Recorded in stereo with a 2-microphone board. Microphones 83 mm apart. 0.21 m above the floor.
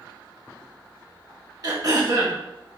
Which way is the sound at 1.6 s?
45° right (ahead or behind).